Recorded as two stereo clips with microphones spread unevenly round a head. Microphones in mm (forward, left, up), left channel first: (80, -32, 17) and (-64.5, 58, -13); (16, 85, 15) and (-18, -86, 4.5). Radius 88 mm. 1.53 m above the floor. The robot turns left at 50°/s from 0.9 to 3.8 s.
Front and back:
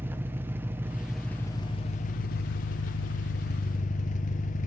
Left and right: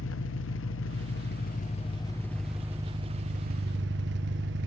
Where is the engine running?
70° left, 0.8 m; by 4.7 s 75° right, 0.8 m.